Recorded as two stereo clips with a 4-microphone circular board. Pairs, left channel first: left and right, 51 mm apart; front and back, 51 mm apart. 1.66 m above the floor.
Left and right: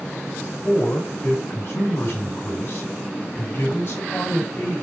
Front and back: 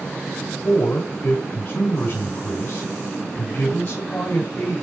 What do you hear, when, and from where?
0.6 s a man speaking: 40° left, 8 m